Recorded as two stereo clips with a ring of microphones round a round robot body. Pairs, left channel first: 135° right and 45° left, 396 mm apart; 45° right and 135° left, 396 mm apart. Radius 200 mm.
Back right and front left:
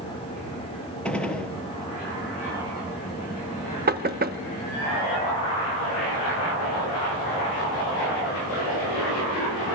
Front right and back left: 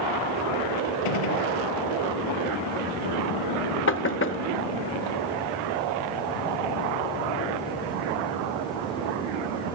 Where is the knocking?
5° right, 0.9 m.